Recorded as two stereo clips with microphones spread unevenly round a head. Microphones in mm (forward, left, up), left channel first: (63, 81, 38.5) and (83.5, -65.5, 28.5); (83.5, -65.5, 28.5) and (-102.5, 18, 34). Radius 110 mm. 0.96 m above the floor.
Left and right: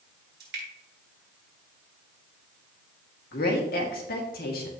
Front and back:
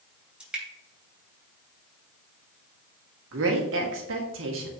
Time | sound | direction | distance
0.4 | dripping | 120° right | 3.5 m
3.3 | a woman speaking | 130° left | 2 m